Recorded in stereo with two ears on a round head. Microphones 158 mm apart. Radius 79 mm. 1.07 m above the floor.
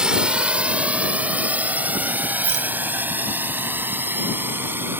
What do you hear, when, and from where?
0.0 s a drone: 5° right (ahead or behind); by 5.0 s 10° right (ahead or behind)
2.4 s a rattle: 65° right (ahead or behind)